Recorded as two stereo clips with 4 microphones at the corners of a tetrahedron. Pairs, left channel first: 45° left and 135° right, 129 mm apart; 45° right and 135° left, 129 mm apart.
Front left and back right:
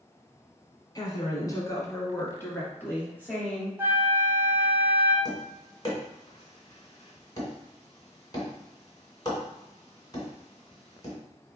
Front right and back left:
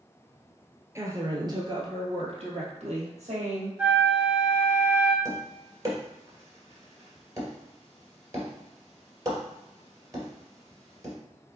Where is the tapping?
90° left, 2.0 m.